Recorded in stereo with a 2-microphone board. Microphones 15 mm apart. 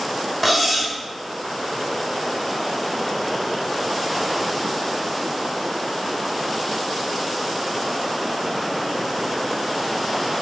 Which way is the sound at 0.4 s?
10° right (ahead or behind).